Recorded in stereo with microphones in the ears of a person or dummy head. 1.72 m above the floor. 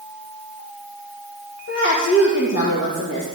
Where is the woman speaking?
75° left (ahead or behind), 2.0 m.